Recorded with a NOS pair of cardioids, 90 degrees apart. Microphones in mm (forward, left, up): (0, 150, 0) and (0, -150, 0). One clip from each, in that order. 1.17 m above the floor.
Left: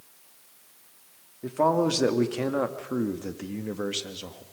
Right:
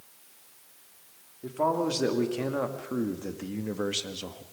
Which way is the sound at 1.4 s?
35° left.